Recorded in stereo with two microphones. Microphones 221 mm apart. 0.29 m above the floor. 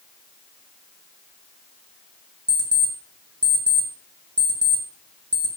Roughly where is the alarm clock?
Right.